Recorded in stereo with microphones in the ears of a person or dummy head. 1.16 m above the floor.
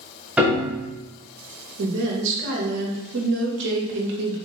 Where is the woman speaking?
70° right (ahead or behind), 1.2 m.